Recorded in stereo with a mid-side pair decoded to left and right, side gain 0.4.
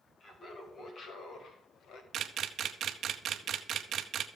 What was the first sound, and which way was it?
Laughter, 60° left.